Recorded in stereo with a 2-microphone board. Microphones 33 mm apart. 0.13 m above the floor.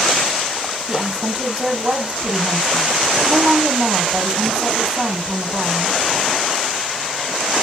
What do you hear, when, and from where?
0.9 s a woman speaking: 35° right (ahead or behind), 3.5 m